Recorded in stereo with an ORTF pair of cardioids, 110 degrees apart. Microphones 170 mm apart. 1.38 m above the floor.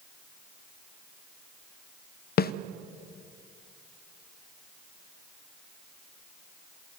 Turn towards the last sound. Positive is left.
turn(degrees=65)